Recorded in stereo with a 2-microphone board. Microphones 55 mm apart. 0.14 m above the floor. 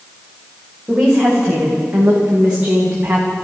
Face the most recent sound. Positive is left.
turn(degrees=-20)  # may be behind; listen again after turning